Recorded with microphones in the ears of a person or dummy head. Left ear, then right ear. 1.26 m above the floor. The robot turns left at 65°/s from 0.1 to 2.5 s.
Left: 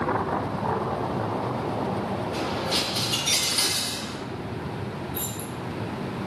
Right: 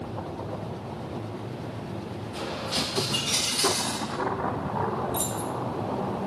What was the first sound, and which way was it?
A dropped coin, 5° left (ahead or behind).